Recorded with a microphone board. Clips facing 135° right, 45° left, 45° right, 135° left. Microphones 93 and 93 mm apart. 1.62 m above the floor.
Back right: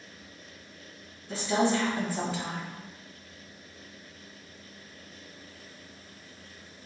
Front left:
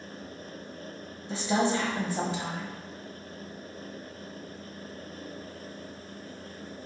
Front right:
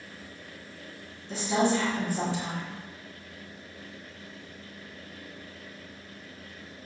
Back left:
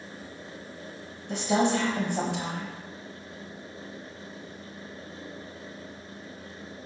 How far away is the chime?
I don't hear a chime.